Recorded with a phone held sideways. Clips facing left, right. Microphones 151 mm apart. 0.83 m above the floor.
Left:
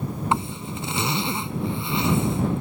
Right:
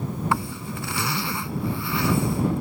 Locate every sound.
0.3 s a zipper: 20° left (ahead or behind)